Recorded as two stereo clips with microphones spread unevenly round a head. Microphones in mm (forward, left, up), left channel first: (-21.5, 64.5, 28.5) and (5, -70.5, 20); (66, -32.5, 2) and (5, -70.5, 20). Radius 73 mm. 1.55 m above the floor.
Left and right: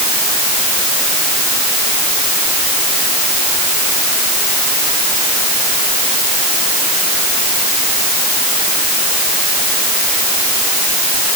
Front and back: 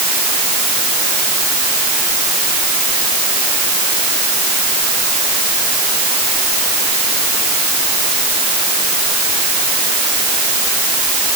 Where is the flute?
I don't hear a flute.